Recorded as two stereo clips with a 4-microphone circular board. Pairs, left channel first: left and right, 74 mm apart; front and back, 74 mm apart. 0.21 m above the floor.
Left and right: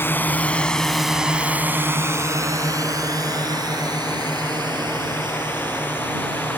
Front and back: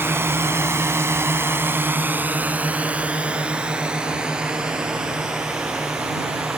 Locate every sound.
0.0 s a drone: 140° left; by 6.6 s 95° right